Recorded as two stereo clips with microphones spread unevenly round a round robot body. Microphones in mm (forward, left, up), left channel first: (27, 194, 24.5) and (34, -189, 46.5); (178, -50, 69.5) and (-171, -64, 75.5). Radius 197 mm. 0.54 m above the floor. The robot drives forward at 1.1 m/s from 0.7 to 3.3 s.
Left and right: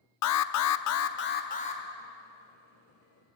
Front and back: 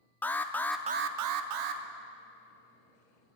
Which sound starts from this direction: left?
An alarm, at 0.2 s.